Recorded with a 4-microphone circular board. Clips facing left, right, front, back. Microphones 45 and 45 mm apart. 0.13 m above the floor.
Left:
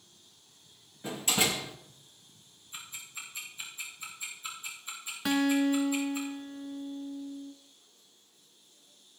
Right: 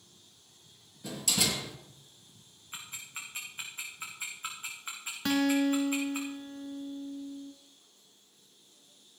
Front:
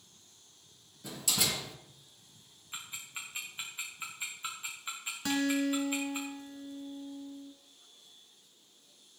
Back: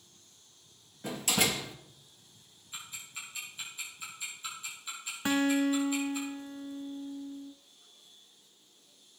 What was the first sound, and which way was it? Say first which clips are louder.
A door slam: left 3 dB, back 5 dB; 145° left.